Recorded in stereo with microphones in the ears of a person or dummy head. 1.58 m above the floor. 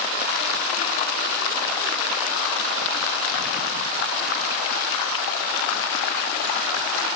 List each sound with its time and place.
Only background noise.